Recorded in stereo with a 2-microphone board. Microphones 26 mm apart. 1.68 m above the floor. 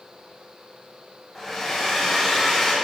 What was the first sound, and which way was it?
A hair dryer, 5° left (ahead or behind).